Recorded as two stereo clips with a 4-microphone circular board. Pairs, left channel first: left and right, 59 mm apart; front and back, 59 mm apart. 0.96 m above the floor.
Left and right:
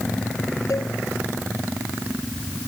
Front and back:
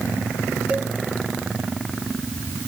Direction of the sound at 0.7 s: 110° left.